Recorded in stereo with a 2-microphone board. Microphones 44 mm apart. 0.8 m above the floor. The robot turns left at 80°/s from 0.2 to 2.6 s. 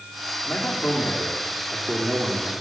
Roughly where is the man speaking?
Left.